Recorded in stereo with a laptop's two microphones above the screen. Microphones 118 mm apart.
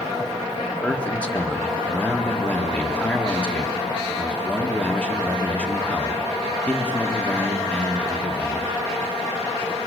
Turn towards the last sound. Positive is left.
turn(degrees=10)  # may be behind; listen again after turning